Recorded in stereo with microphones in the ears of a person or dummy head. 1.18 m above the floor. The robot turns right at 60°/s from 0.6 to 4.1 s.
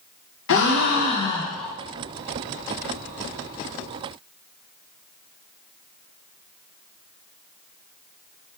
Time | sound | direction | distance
0.5 | a gasp | 120° left | 0.6 m